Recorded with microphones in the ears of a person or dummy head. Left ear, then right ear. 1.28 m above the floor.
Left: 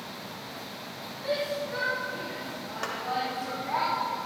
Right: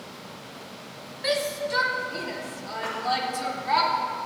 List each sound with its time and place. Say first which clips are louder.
1.2 s a shout: right 4 dB; 75° right (ahead or behind), 1.6 m; by 3.8 s 85° right, 3 m
2.8 s a clap: right 2 dB; 75° left (ahead or behind), 2 m